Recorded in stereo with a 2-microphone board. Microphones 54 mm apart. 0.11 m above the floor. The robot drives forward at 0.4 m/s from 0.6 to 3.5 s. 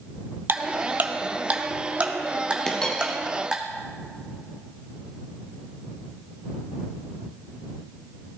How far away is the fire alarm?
No fire alarm in this recording.